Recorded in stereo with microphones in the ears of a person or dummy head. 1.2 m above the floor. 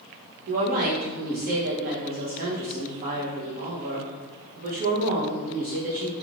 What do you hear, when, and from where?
0.5 s a woman speaking: 45° right (ahead or behind), 0.8 m